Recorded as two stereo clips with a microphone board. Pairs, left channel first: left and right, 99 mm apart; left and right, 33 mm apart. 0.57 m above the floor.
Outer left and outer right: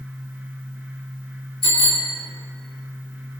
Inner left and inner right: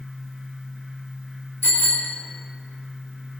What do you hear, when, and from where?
1.6 s a bicycle bell: 55° left (ahead or behind), 4.5 m